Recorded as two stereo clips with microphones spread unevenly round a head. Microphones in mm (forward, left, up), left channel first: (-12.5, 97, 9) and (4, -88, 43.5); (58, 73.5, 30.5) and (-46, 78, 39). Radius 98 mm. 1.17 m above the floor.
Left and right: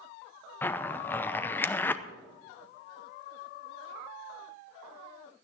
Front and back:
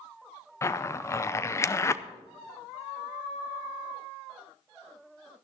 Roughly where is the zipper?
Ahead left.